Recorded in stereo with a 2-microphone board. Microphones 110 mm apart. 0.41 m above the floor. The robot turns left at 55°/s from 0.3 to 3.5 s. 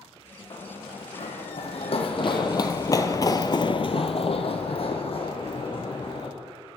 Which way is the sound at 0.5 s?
45° left (ahead or behind).